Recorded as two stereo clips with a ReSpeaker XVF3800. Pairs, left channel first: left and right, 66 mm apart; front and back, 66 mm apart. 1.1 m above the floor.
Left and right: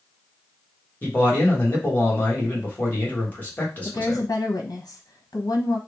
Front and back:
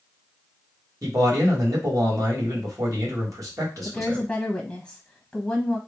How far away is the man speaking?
About 1.7 m.